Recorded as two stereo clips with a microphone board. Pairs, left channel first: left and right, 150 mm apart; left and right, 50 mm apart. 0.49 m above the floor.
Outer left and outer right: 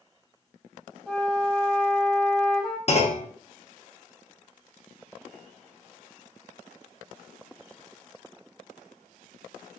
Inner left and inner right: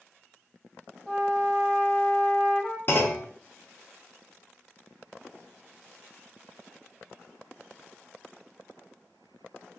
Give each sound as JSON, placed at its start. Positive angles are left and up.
{"t": 1.1, "sound": "a flute", "side_deg": 0, "distance_m": 1.5}
{"t": 2.9, "sound": "a clunk", "side_deg": 45, "distance_m": 0.7}